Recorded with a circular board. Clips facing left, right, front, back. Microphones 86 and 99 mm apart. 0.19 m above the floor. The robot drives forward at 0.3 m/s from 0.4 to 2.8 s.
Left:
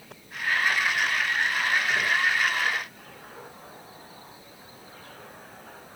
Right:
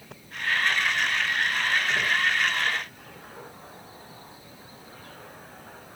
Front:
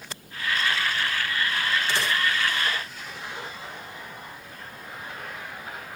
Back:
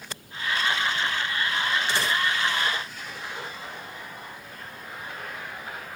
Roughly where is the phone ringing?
No phone ringing in this recording.